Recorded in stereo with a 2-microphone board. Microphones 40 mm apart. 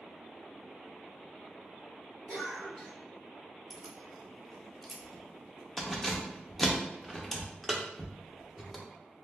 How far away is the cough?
About 1.8 m.